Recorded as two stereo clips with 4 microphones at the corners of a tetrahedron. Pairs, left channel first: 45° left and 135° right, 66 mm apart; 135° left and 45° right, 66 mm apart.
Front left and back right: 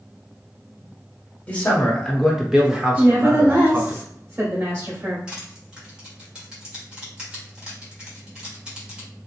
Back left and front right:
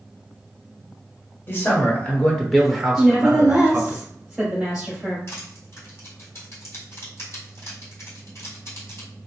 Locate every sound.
1.5 s a man speaking: 105° left, 1.1 m; by 4.0 s 90° right, 1.4 m
3.0 s a woman speaking: 120° right, 1.6 m
5.3 s crushing: 155° left, 1.9 m